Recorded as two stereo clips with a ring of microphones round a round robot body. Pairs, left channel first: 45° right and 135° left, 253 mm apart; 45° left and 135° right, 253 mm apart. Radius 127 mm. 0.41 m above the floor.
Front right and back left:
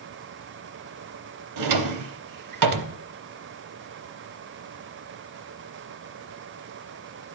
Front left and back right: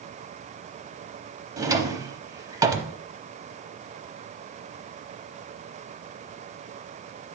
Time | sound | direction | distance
1.6 | a drawer | 150° left | 0.7 m